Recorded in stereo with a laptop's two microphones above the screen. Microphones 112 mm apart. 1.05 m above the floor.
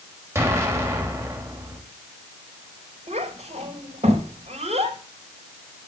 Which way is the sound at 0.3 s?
25° right (ahead or behind).